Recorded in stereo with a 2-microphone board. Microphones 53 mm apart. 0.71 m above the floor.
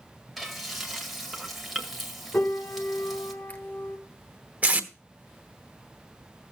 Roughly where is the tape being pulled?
Right.